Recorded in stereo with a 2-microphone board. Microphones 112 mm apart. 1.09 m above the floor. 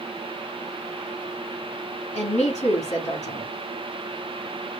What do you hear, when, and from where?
2.1 s a woman speaking: 80° left, 2 m